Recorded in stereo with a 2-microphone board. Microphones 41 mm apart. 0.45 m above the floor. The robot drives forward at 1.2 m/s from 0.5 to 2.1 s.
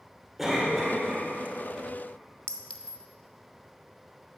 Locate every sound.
0.4 s a cough: 5° right (ahead or behind), 1.6 m
2.5 s a clink: 35° left (ahead or behind), 0.6 m